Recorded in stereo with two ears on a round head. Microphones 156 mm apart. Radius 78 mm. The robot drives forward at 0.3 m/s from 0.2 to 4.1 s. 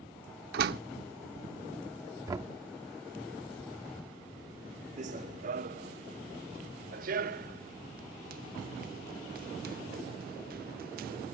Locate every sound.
0.5 s a door slam: 60° right (ahead or behind)
2.3 s knocking: 20° right (ahead or behind)
5.0 s running footsteps: 45° right (ahead or behind); by 11.3 s 55° right (ahead or behind)